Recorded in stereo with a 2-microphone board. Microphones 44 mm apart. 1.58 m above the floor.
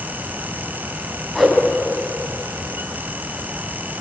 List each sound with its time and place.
1.4 s a whoosh: 5° left (ahead or behind), 5 m